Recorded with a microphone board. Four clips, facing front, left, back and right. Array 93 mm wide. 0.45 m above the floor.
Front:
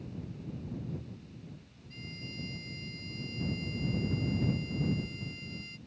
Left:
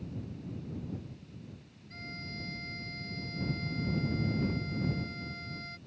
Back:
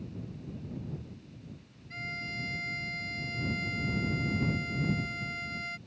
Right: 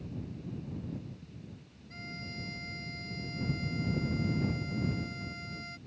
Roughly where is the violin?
Behind.